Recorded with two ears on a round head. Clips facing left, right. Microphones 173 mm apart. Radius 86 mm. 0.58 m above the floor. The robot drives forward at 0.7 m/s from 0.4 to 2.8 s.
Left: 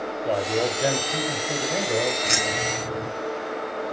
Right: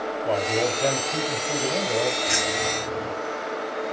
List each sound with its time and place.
0.2 s a man speaking: 10° left (ahead or behind), 1.6 m; by 2.1 s 5° left (ahead or behind), 3 m
2.2 s keys jangling: 50° left (ahead or behind), 4.5 m; by 3.1 s 45° left (ahead or behind), 4.5 m